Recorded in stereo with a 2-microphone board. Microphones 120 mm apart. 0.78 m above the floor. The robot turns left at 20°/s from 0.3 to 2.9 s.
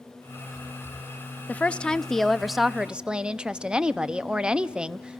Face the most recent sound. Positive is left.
turn(degrees=-10)  # may be behind; listen again after turning